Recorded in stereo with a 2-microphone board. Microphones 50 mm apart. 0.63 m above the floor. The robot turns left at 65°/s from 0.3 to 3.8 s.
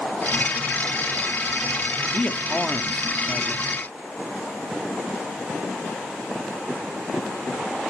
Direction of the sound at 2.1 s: 50° left.